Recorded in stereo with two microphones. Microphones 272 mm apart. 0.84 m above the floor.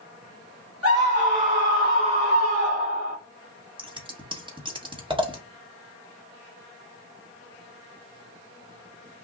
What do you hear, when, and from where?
0.8 s a scream: 60° right (ahead or behind), 1.6 m; by 3.2 s 70° right (ahead or behind), 2.5 m
3.8 s scissors: 20° right (ahead or behind), 0.9 m